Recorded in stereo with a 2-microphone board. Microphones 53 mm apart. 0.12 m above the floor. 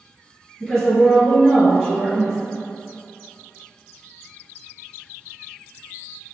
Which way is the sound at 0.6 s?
5° right (ahead or behind).